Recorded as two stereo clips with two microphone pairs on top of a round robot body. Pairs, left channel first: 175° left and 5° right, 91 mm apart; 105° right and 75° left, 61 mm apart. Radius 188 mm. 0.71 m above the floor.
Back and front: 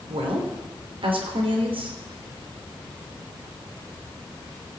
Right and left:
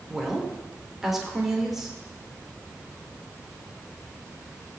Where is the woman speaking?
10° right, 3 m.